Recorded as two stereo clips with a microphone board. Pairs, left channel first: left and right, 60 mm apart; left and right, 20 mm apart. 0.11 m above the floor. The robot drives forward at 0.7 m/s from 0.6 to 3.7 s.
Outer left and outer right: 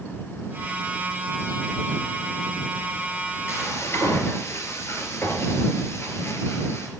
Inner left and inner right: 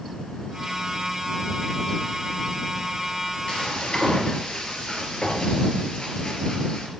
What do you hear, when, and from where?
3.5 s frying: 45° left (ahead or behind), 2.5 m